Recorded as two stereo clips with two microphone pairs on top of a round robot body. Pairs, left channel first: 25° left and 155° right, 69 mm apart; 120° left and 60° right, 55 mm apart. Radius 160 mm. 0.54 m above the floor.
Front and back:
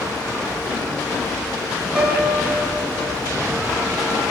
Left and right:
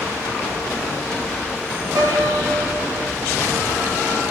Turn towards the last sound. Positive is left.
turn(degrees=-85)